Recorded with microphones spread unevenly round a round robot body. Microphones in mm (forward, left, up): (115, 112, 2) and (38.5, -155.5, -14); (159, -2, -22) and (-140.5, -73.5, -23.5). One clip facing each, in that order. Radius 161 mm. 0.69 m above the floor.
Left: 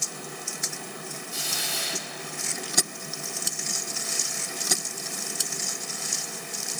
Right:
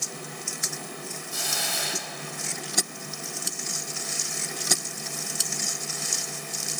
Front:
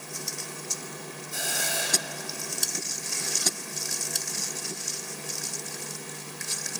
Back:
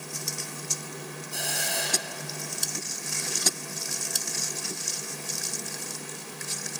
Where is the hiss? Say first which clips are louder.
Right 1 dB, front 2 dB; 75° right, 4 m.